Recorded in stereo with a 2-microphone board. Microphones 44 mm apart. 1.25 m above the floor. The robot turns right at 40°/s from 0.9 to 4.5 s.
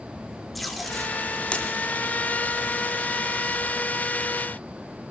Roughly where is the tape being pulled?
Centre.